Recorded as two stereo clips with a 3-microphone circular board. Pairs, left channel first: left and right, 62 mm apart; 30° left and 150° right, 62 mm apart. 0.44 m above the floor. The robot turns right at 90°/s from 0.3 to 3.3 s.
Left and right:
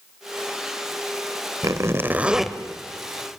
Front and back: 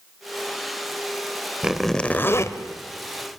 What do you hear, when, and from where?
1.6 s a zipper: 75° right, 1.2 m; by 2.6 s 10° left, 1.2 m